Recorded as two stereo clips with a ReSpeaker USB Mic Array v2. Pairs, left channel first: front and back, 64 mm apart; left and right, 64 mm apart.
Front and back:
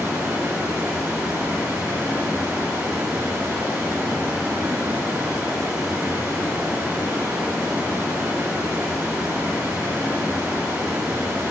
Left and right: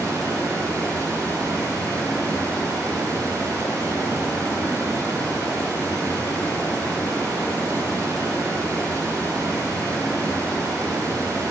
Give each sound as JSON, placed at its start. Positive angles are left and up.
{"t": 0.0, "sound": "running water", "azimuth_deg": -110, "distance_m": 1.6}